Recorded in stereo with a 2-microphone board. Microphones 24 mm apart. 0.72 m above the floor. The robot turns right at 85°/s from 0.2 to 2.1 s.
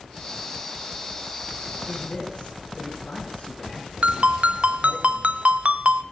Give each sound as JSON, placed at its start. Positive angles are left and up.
{"t": 1.9, "sound": "a man speaking", "side_deg": 70, "distance_m": 5.5}
{"t": 4.0, "sound": "a ringtone", "side_deg": -65, "distance_m": 0.6}